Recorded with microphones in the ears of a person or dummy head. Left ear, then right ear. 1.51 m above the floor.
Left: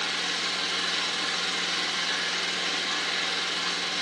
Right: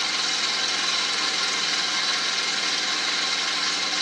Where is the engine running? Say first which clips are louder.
Right 4 dB; 35° right (ahead or behind), 3.5 m.